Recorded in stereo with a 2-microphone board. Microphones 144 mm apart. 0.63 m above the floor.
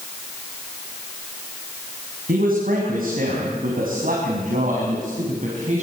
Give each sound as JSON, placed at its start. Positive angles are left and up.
{"t": 2.3, "sound": "a man speaking", "side_deg": -80, "distance_m": 4.5}